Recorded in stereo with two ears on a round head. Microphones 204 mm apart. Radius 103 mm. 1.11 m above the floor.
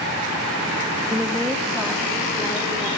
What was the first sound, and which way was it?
A woman speaking, 10° right (ahead or behind).